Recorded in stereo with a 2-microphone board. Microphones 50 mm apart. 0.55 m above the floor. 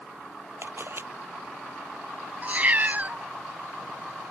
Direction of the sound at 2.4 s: 35° right (ahead or behind).